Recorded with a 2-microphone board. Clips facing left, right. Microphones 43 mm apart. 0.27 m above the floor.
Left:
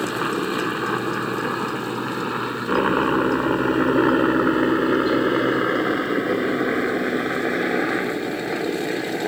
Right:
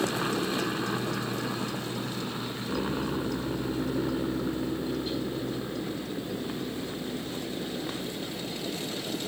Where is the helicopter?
30° left (ahead or behind); by 9.3 s 70° left (ahead or behind).